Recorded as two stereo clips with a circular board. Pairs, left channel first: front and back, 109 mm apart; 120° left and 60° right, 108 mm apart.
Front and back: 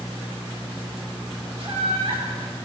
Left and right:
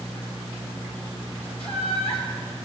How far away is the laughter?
About 5 m.